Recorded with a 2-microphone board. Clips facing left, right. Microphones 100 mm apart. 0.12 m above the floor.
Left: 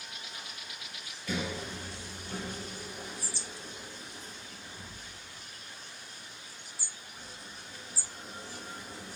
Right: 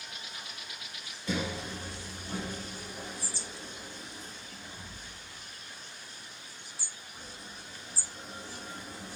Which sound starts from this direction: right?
A sliding door, at 1.3 s.